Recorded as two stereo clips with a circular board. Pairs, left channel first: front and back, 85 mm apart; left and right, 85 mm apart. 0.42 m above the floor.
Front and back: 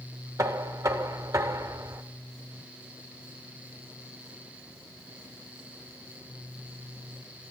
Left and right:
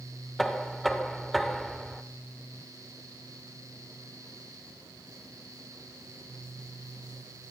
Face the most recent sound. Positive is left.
turn(degrees=180)